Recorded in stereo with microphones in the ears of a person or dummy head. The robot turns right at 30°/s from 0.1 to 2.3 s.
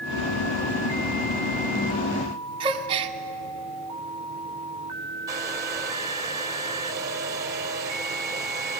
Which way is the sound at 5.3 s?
15° right (ahead or behind).